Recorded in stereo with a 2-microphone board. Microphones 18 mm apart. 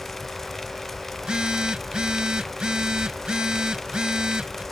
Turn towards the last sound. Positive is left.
turn(degrees=-60)  # may be behind; listen again after turning